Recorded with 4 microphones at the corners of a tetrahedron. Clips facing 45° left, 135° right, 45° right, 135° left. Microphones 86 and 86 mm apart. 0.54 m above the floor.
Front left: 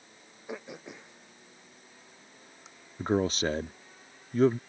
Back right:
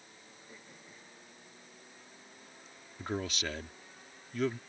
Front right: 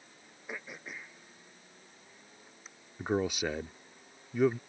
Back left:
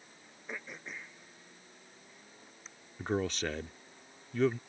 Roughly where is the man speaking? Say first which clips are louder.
Front left 9 dB, front right 2 dB; ahead left.